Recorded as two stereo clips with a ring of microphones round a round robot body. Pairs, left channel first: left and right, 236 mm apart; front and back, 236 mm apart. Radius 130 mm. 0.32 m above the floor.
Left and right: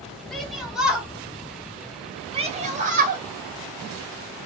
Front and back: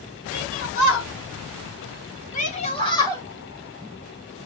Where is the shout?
Straight ahead, 3 m; by 3.2 s 75° right, 1.8 m.